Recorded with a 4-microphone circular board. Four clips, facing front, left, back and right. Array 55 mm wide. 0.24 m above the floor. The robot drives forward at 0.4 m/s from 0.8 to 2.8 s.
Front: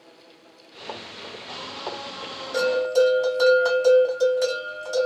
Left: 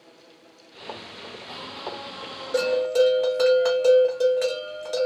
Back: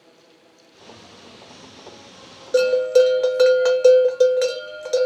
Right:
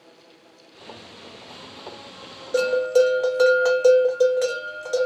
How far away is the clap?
I don't hear a clap.